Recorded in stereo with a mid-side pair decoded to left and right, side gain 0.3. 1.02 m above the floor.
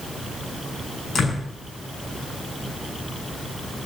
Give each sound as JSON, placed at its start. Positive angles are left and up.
{"t": 1.1, "sound": "a door slam", "azimuth_deg": 55, "distance_m": 9.0}